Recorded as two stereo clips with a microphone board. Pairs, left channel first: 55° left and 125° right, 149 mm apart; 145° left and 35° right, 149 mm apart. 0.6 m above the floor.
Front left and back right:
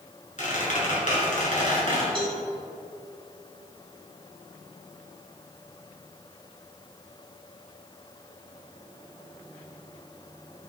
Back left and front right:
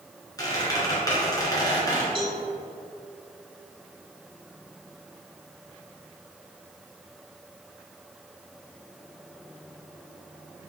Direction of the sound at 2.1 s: 80° right.